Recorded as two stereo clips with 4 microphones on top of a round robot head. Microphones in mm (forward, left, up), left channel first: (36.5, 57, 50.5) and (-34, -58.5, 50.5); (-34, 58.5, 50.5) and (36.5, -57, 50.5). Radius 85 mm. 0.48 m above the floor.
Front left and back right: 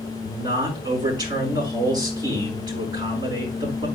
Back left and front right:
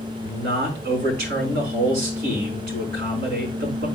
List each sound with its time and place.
0.2 s a man speaking: 60° right, 5 m